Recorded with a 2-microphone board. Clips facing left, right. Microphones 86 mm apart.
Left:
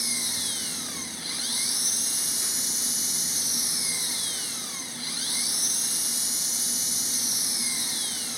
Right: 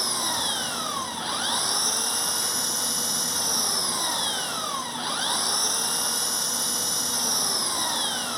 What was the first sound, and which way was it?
An engine running, 60° right (ahead or behind).